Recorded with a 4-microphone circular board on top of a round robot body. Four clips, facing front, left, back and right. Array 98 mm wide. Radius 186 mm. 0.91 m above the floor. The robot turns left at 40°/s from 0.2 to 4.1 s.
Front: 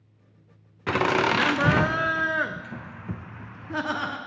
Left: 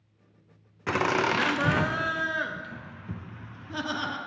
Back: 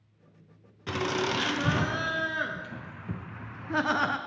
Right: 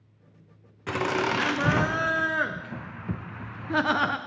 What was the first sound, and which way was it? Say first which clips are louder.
Laughter: left 1 dB, front 7 dB; 20° left.